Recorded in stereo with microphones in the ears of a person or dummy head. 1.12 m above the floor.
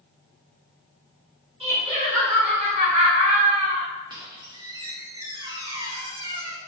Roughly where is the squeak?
Right.